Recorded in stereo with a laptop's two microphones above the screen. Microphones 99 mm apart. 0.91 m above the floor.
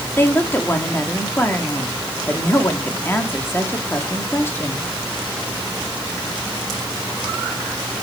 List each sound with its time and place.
0.2 s a woman speaking: 20° left (ahead or behind), 1.8 m